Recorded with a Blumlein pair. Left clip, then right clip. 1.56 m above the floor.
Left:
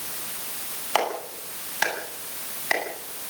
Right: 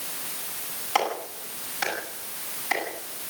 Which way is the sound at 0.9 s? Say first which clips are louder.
Left 1 dB; 20° left.